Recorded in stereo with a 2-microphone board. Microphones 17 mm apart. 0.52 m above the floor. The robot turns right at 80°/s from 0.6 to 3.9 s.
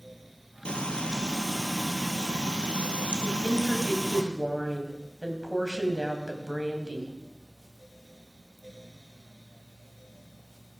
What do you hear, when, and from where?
0.7 s frying: 85° left, 2 m; by 4.2 s 15° right, 2 m
3.2 s a woman speaking: 85° right, 3 m; by 7.1 s 30° right, 3 m